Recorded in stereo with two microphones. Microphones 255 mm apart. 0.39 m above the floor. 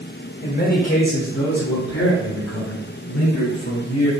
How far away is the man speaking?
About 1.7 m.